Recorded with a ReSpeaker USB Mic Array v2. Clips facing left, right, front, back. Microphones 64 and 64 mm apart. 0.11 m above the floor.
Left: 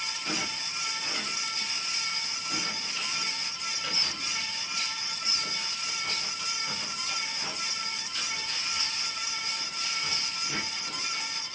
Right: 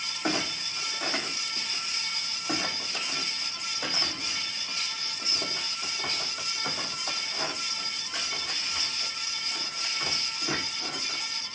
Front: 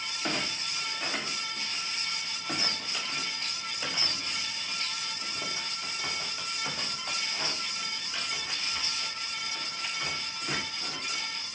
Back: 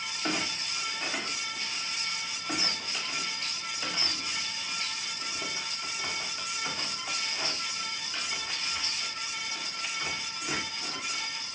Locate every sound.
0.2 s a clunk: 85° right, 5.5 m